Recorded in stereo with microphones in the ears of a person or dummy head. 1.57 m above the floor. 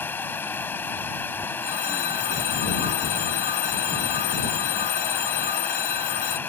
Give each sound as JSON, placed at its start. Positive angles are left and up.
{"t": 0.0, "sound": "running water", "side_deg": 10}
{"t": 1.6, "sound": "a phone ringing", "side_deg": 45}